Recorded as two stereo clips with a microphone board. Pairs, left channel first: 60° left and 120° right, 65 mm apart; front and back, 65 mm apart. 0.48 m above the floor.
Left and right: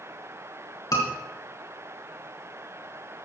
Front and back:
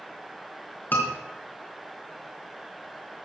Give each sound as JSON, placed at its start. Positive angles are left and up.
{"t": 0.9, "sound": "a scream", "azimuth_deg": 55, "distance_m": 5.0}